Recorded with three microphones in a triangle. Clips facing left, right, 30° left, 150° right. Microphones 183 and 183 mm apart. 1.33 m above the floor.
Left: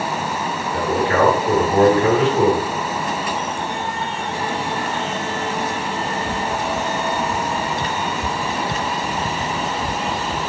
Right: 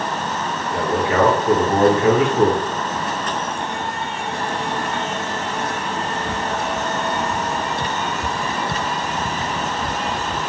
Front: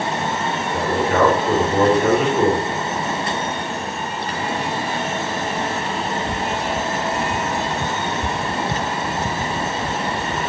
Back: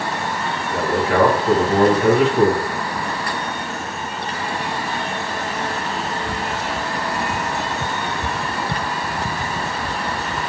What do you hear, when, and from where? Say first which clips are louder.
0.7 s a man speaking: even, back 1 dB; 160° right, 1.5 m